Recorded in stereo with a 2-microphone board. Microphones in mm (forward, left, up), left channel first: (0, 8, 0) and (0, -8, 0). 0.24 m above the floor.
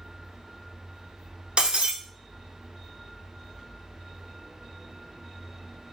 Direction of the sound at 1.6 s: 80° right.